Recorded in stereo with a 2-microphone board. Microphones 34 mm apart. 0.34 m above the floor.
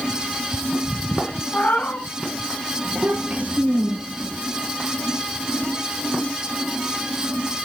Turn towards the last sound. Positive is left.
turn(degrees=-50)  # may be behind; listen again after turning